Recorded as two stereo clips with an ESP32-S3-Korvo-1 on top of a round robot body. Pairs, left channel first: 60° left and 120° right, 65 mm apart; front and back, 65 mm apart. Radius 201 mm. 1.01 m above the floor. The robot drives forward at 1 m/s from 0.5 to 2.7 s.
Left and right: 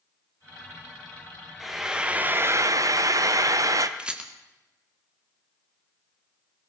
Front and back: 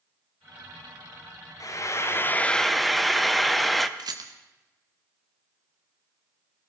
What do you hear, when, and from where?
1.6 s frying: 35° right, 1.4 m; by 3.9 s 90° right, 0.8 m
4.0 s a rattle: 165° left, 0.8 m